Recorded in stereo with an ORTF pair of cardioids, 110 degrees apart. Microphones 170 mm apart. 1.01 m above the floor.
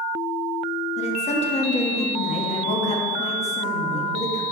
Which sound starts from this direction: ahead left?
A woman speaking, at 1.0 s.